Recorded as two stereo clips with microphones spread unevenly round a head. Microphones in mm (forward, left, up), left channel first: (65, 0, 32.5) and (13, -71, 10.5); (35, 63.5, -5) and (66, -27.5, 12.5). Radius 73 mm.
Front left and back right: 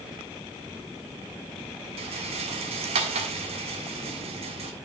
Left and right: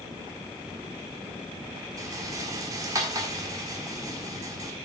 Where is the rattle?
130° right, 1.4 m.